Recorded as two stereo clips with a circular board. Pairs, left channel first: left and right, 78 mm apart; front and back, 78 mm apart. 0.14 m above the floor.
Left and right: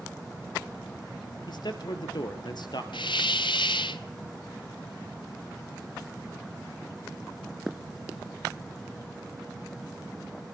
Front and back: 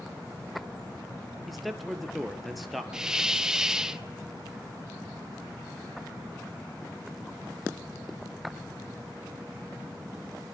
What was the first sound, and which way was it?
A man speaking, 90° left.